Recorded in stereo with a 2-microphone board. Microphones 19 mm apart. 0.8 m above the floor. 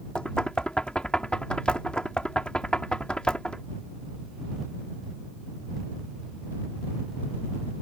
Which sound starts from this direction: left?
Knocking, at 0.1 s.